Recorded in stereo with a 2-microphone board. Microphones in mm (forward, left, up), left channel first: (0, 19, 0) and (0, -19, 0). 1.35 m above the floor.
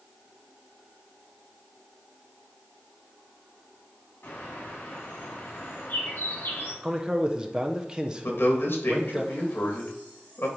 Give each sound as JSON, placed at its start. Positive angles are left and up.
{"t": 4.2, "sound": "a bird", "side_deg": 70, "distance_m": 3.0}
{"t": 6.8, "sound": "a man speaking", "side_deg": -20, "distance_m": 1.0}
{"t": 8.2, "sound": "a man speaking", "side_deg": 70, "distance_m": 2.5}